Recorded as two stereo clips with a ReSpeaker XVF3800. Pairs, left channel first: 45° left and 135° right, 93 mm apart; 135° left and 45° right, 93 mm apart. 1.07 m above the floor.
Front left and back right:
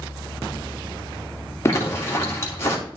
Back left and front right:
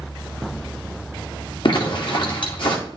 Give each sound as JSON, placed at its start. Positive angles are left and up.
{"t": 1.6, "sound": "a zipper", "azimuth_deg": 105, "distance_m": 2.0}